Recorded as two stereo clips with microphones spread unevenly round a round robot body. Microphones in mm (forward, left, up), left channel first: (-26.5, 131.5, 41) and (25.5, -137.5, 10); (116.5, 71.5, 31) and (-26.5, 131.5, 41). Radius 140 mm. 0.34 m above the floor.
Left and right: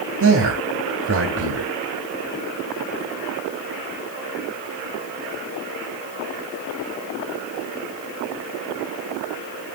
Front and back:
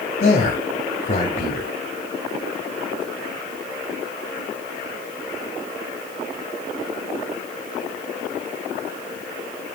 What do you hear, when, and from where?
0.2 s a man speaking: 60° right, 2.5 m